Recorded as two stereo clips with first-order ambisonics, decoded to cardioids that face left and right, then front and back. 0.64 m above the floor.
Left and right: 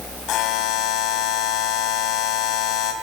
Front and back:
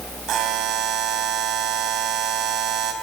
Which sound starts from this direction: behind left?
A buzzer, at 0.3 s.